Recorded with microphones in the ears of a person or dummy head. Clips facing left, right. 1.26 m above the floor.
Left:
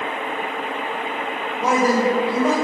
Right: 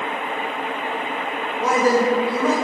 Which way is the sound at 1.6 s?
10° left (ahead or behind).